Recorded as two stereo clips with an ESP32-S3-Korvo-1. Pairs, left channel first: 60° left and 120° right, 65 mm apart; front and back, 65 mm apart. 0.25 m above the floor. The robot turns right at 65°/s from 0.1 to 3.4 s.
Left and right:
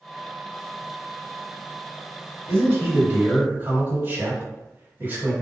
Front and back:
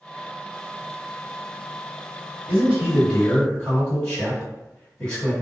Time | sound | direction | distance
2.5 | a man speaking | 135° right | 1.9 m